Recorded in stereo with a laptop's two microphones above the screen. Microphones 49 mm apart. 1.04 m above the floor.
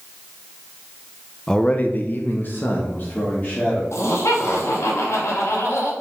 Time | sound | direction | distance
1.5 | a man speaking | 10° left (ahead or behind) | 0.6 m
3.9 | laughter | 75° left (ahead or behind) | 2 m